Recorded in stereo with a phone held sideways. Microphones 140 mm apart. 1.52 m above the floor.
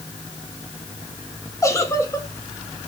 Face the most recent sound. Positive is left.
turn(degrees=20)  # may be behind; listen again after turning